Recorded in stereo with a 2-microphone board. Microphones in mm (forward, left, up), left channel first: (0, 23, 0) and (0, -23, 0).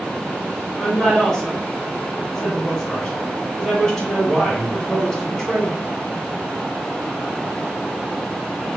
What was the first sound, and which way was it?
A woman speaking, 10° left (ahead or behind).